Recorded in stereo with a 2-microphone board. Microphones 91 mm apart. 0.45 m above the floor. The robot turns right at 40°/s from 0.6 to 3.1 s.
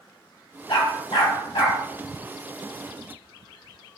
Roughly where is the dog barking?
Left.